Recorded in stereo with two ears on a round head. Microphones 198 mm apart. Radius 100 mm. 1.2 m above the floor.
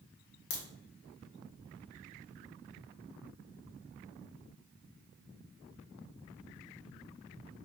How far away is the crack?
About 0.8 m.